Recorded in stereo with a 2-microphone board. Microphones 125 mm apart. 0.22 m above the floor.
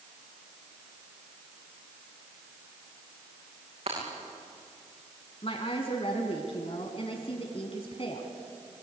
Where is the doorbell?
No doorbell in this recording.